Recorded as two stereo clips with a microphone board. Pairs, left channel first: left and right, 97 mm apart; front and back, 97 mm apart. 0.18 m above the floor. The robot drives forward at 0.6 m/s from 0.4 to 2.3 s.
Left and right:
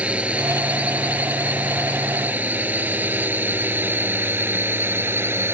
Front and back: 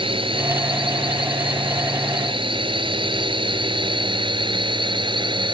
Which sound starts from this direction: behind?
A drone, at 0.0 s.